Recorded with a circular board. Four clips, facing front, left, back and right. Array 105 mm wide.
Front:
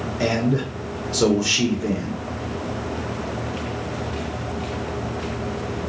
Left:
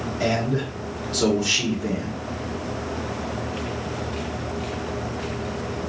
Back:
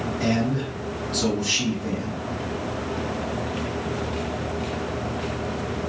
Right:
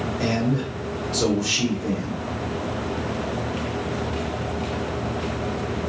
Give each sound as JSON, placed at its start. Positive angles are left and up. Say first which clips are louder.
{"t": 0.2, "sound": "a man speaking", "louder": "left 1 dB, front 3 dB", "azimuth_deg": 5, "distance_m": 2.5}